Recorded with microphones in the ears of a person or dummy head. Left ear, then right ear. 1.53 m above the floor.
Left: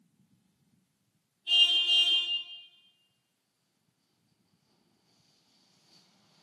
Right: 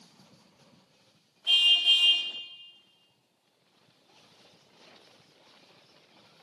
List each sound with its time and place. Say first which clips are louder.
1.5 s a car horn: right 2 dB; 40° right (ahead or behind), 5.5 m